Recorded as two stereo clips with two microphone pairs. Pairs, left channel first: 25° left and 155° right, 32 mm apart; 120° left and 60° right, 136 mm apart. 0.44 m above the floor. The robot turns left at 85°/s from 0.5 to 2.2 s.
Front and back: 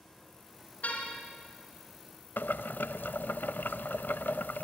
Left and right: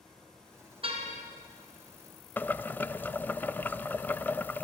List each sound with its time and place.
0.8 s a car horn: 10° right, 3 m; by 1.2 s 45° right, 3 m
2.4 s boiling: 45° left, 0.5 m